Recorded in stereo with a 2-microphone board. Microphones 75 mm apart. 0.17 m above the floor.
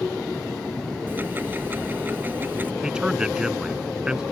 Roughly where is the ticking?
Right.